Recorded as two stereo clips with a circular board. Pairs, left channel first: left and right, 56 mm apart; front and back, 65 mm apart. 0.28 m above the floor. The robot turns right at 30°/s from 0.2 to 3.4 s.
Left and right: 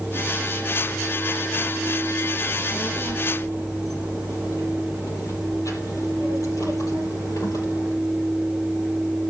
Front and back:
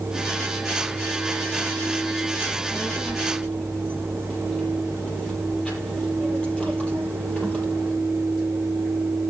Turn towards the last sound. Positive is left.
turn(degrees=75)